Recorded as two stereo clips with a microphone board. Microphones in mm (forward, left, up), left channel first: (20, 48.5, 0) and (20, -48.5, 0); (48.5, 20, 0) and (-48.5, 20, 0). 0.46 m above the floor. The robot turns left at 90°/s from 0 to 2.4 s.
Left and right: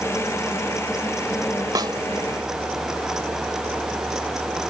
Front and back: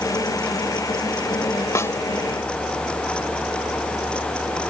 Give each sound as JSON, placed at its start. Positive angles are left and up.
{"t": 1.8, "sound": "a snare drum", "azimuth_deg": -50}